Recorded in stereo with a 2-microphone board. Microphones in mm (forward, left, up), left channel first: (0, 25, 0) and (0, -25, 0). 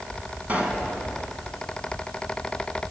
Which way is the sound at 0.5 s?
30° right (ahead or behind).